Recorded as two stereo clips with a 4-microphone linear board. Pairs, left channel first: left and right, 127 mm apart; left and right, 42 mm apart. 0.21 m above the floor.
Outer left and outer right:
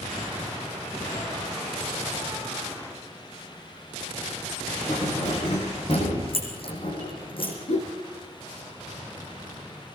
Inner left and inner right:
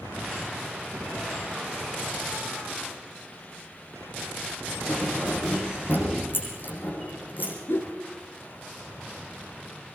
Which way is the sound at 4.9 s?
50° left (ahead or behind).